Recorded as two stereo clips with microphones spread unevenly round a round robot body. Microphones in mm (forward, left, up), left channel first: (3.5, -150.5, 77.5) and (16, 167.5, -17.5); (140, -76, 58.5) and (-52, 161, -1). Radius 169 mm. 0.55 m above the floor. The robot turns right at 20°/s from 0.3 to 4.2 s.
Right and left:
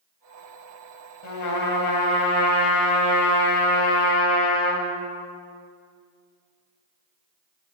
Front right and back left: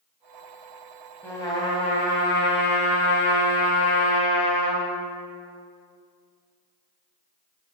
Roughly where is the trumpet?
Behind right.